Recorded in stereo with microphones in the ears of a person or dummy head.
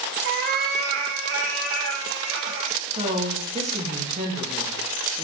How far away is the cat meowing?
About 1.4 m.